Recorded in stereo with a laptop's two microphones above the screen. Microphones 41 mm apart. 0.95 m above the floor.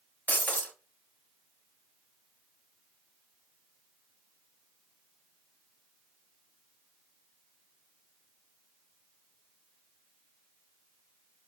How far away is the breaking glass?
About 1.5 m.